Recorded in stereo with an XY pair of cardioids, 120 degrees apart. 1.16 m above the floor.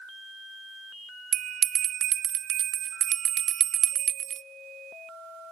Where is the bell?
60° right, 0.7 m.